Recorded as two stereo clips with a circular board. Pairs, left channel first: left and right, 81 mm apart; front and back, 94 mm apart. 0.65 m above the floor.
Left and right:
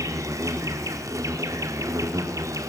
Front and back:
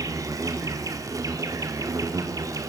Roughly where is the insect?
Behind right.